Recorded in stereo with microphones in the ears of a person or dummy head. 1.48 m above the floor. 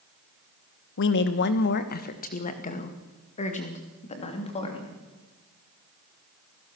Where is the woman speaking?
60° left (ahead or behind), 1.2 m; by 5.0 s 25° left (ahead or behind), 3 m.